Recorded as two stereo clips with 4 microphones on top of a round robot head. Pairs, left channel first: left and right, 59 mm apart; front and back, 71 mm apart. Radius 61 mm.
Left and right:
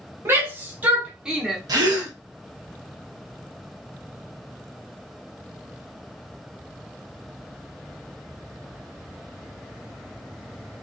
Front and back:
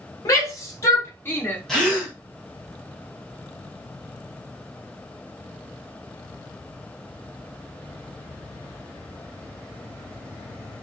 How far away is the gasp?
About 1.4 m.